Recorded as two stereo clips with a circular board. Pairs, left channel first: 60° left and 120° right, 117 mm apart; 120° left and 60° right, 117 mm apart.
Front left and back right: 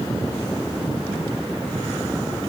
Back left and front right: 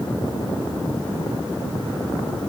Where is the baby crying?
No baby crying in this recording.